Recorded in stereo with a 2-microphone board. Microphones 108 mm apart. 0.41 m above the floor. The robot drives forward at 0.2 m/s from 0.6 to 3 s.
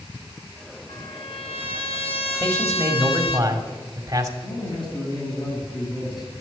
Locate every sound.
0.9 s a trumpet: 60° left (ahead or behind), 1.6 m; by 3.4 s 75° left (ahead or behind), 1.4 m
2.4 s a man speaking: 30° right (ahead or behind), 2 m
4.4 s a man speaking: 45° left (ahead or behind), 3 m